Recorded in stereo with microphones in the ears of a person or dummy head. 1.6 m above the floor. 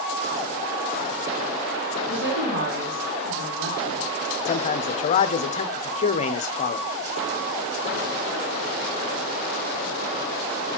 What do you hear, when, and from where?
2.0 s a woman speaking: 75° right (ahead or behind), 3 m
4.5 s a man speaking: 40° left (ahead or behind), 0.5 m